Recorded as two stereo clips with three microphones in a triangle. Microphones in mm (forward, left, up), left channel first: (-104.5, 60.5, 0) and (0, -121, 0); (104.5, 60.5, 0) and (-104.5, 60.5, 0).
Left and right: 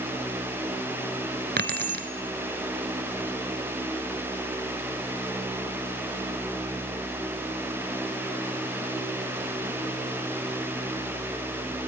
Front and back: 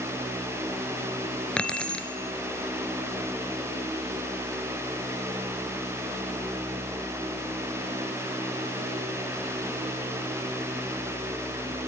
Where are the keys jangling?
85° right, 1.3 m.